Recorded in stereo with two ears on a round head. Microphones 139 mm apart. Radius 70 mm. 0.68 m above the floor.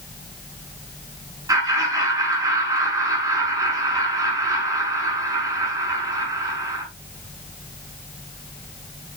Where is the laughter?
25° right (ahead or behind), 7 m.